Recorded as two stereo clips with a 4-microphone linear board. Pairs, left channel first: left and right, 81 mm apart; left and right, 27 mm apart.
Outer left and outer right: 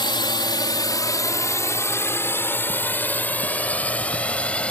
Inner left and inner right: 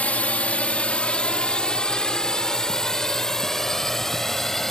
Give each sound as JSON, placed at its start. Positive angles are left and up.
{"t": 0.0, "sound": "a drone", "side_deg": 70}